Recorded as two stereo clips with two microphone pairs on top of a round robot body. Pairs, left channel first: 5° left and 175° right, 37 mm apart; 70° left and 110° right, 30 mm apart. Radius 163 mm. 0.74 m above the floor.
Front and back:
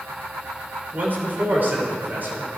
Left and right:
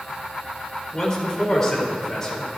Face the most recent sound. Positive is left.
turn(degrees=145)